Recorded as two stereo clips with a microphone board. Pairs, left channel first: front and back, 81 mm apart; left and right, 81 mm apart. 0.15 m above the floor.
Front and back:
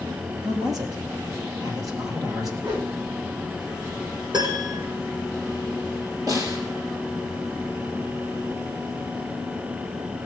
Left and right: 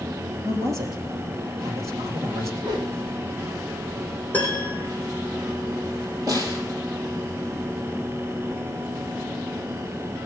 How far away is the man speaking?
About 3.5 m.